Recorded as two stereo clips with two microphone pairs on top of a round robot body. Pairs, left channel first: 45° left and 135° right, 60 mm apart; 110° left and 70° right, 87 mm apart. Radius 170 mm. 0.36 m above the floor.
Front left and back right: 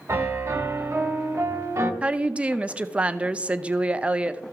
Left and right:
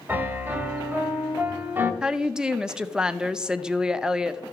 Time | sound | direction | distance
0.1 | a piano | 125° right | 1.7 m
2.0 | a woman speaking | 135° right | 0.8 m